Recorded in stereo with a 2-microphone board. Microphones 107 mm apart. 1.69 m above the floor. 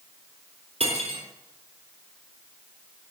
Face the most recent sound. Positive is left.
turn(degrees=-80)